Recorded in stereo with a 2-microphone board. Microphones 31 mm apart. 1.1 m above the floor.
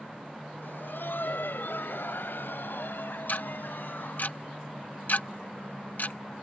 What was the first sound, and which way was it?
Laughter, 80° left.